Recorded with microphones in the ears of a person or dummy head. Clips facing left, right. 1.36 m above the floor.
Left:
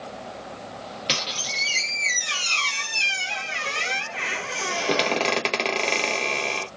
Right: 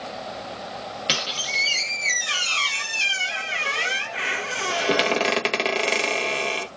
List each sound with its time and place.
1.1 s a squeak: 5° right (ahead or behind), 0.7 m